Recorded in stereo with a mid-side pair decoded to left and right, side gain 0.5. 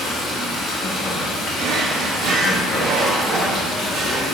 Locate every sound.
0.0 s running water: 65° left, 1.0 m
1.6 s a drawer: 65° right, 0.7 m